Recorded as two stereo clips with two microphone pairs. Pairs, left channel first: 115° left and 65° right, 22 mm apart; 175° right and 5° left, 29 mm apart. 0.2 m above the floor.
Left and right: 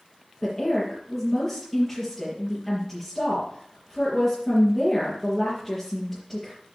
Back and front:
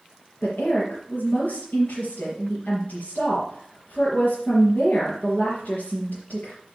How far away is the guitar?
I don't hear a guitar.